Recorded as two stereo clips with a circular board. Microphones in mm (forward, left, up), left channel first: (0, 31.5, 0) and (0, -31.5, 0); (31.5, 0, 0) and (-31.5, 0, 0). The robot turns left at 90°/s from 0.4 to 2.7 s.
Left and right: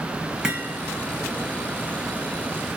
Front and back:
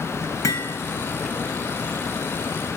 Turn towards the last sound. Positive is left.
turn(degrees=145)